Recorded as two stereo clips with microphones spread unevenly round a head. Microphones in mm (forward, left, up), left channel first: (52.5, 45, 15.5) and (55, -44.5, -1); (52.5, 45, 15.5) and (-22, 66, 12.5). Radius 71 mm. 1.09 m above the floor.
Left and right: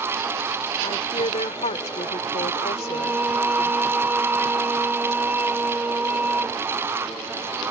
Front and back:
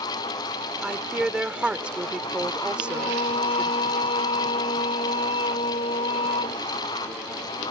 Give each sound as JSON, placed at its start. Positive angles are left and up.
{"t": 0.8, "sound": "a woman speaking", "azimuth_deg": 85}
{"t": 2.7, "sound": "singing", "azimuth_deg": -15}